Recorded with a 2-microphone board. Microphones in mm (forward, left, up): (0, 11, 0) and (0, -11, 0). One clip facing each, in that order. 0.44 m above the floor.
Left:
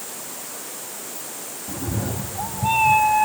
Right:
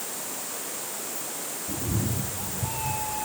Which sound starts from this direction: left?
A cat meowing, at 1.7 s.